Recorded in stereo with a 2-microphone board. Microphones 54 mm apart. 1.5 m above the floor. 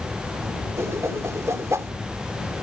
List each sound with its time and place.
0.8 s a whoosh: 75° right (ahead or behind)